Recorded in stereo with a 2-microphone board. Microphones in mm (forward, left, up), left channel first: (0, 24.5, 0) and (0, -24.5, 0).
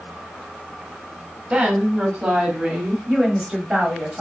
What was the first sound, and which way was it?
A woman speaking, 25° right (ahead or behind).